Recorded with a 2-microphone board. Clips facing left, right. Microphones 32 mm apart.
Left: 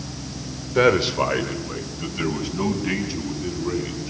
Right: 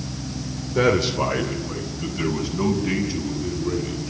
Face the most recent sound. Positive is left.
turn(degrees=20)  # may be behind; listen again after turning